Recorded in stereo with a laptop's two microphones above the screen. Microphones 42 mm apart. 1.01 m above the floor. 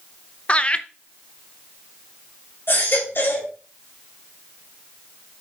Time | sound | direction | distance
0.5 | laughter | 25° left (ahead or behind) | 0.6 m
2.7 | a baby crying | 60° left (ahead or behind) | 3 m